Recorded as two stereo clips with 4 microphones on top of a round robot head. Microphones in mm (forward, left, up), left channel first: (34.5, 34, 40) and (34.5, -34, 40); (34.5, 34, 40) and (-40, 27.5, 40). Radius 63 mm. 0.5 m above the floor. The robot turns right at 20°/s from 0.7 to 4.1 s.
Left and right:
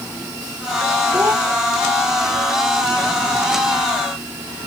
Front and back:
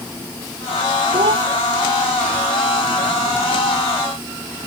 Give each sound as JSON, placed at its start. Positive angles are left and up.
{"t": 1.1, "sound": "a child speaking", "azimuth_deg": -160}